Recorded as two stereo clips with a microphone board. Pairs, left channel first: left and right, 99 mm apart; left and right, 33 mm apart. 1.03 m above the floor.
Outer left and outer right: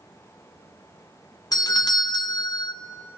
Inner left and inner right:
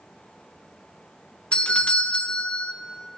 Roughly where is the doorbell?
Left.